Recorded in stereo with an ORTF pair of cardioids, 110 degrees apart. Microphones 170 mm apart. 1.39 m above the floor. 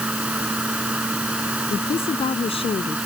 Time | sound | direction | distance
0.0 | a fan | 5° right | ?
1.7 | a woman speaking | 35° left | ?